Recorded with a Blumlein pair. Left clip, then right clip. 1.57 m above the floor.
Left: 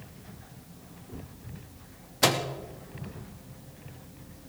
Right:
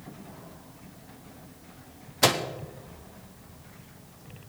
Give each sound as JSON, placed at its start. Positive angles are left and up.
{"t": 2.2, "sound": "a microwave", "azimuth_deg": -5, "distance_m": 1.0}